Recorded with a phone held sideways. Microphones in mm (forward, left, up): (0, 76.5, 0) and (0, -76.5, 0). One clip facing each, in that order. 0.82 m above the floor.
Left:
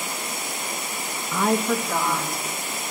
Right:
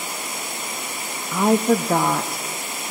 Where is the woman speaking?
5° right (ahead or behind), 0.6 m; by 2.8 s 75° right (ahead or behind), 1.6 m.